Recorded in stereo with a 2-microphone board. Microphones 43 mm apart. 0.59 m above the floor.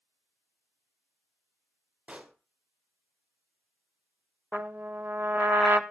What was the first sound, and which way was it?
A pop, 25° right (ahead or behind).